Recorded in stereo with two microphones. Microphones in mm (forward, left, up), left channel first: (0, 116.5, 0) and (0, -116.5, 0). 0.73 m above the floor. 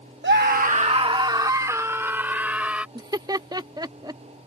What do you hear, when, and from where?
0.2 s a scream: 50° right (ahead or behind); by 2.9 s 5° right (ahead or behind)
3.0 s laughter: 15° right (ahead or behind)